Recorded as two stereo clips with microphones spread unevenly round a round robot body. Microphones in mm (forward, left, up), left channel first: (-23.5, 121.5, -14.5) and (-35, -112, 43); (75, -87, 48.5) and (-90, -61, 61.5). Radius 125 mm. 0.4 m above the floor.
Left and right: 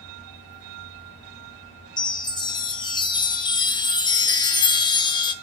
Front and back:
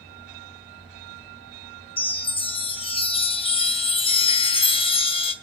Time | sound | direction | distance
2.0 | a chime | 35° left | 1.0 m